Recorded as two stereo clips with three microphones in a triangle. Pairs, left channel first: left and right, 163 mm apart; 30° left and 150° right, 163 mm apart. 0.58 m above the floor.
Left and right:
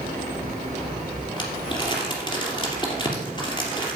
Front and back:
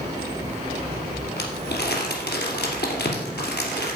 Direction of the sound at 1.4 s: 30° left.